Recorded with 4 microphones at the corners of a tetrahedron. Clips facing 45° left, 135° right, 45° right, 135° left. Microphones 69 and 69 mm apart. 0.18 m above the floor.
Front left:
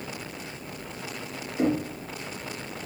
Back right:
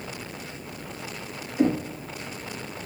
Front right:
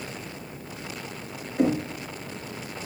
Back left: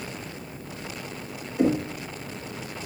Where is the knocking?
20° right, 2 m.